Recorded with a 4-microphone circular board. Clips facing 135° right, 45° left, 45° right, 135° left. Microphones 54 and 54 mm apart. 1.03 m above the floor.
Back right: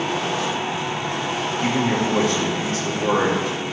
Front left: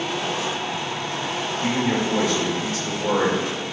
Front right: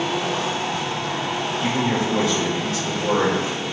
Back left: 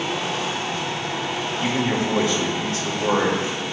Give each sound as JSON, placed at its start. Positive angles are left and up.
{"t": 1.6, "sound": "a man speaking", "azimuth_deg": -175, "distance_m": 2.5}